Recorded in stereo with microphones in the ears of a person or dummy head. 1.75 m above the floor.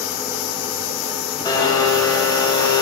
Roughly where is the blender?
Centre.